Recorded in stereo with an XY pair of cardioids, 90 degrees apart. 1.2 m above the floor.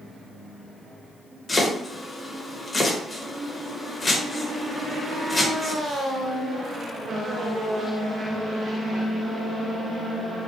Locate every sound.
1.5 s chopping: 30° left, 0.9 m